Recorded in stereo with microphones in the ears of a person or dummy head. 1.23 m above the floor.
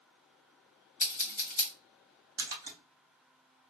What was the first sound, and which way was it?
Scissors, 35° left (ahead or behind).